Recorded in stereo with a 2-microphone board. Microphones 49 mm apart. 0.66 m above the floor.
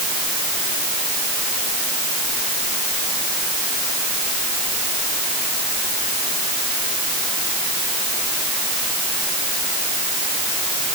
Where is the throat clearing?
I don't hear throat clearing.